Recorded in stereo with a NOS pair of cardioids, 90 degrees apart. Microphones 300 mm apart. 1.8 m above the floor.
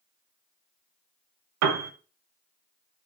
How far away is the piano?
About 1.1 m.